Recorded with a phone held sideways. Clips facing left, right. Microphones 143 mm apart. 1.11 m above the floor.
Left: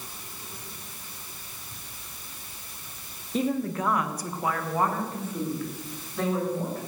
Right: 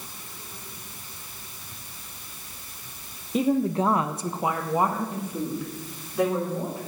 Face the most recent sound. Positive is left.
turn(degrees=-15)  # may be behind; listen again after turning